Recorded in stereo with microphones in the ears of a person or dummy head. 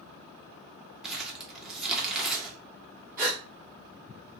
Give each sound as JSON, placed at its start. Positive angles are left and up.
{"t": 1.0, "sound": "crumpling", "side_deg": 0, "distance_m": 0.6}
{"t": 3.2, "sound": "a gasp", "side_deg": -15, "distance_m": 1.2}